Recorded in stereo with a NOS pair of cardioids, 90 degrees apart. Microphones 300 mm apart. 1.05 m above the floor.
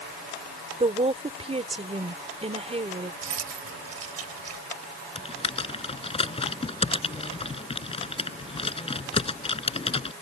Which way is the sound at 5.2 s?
20° left.